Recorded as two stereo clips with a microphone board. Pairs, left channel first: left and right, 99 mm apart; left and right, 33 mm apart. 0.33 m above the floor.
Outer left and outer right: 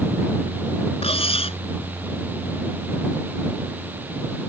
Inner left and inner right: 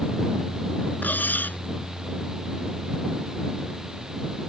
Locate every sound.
1.0 s cutlery clinking: 80° left